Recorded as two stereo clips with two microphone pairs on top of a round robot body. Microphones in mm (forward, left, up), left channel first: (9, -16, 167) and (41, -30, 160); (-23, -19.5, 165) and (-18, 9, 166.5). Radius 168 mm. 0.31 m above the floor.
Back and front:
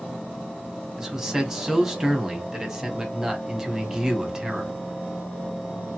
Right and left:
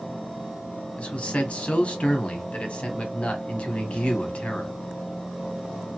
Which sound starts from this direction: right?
A man speaking, at 1.0 s.